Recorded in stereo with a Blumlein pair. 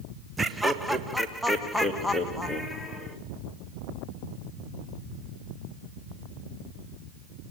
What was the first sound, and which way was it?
Laughter, 10° right.